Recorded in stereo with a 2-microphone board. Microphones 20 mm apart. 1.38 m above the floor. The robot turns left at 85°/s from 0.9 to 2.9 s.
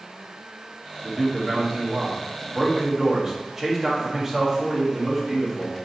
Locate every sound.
1.0 s a man speaking: 15° right, 0.8 m; by 5.8 s 170° right, 0.8 m